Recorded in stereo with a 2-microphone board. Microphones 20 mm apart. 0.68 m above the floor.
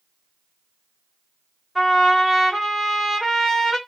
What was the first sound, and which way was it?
A trumpet, centre (ahead or behind).